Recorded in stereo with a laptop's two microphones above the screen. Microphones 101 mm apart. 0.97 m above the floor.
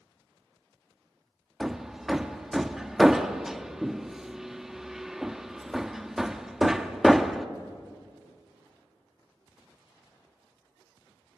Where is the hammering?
5° right (ahead or behind), 0.7 m.